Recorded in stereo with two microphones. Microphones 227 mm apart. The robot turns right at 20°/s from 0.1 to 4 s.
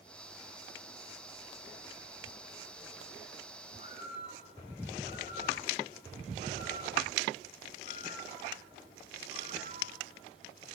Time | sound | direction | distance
3.7 | a bird | 35° right (ahead or behind) | 4 m